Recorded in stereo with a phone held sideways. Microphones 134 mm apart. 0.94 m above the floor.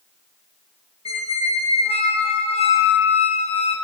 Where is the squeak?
45° left (ahead or behind), 0.6 m.